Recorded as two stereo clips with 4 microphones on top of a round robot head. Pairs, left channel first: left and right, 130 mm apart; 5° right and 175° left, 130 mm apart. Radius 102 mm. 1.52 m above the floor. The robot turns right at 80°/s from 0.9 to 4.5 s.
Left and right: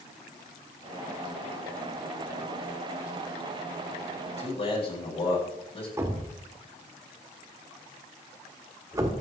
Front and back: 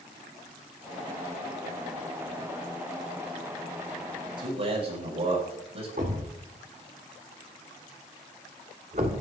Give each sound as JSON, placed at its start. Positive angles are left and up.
{"t": 4.2, "sound": "a man speaking", "azimuth_deg": 115, "distance_m": 7.0}
{"t": 6.0, "sound": "a thud", "azimuth_deg": -145, "distance_m": 1.5}